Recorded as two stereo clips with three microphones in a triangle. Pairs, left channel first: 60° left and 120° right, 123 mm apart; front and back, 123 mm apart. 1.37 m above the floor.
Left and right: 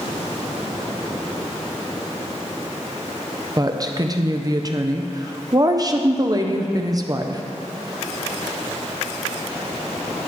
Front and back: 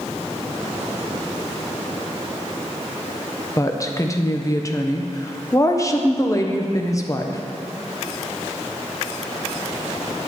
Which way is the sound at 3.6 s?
60° right.